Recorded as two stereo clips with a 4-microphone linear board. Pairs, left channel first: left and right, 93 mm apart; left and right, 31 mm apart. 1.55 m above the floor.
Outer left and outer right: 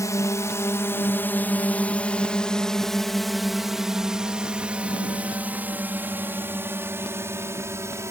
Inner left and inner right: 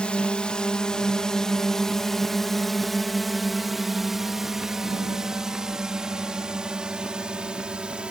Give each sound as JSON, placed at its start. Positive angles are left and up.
{"t": 0.0, "sound": "a drone", "side_deg": 35}